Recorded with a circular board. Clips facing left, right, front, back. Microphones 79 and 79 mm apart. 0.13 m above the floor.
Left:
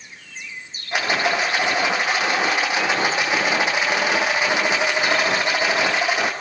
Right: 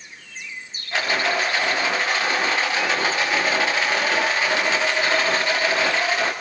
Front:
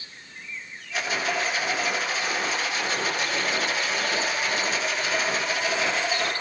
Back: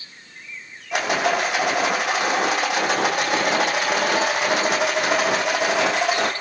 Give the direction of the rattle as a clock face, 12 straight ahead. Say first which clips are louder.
Left 1 dB, back 7 dB; 7 o'clock.